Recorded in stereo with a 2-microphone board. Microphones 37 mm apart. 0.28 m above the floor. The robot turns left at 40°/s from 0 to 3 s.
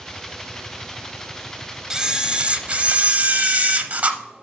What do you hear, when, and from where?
1.9 s a camera shutter: 25° right, 0.7 m; by 4.2 s 70° right, 0.7 m